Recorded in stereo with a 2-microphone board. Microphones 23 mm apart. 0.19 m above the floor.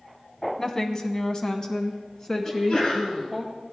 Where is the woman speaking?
25° left (ahead or behind), 1.1 m.